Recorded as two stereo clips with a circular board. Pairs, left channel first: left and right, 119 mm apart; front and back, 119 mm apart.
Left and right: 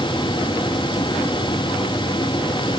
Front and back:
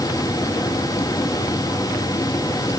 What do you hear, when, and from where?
Only background noise.